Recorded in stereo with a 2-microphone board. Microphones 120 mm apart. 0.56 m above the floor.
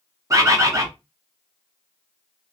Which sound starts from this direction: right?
A bird, at 0.3 s.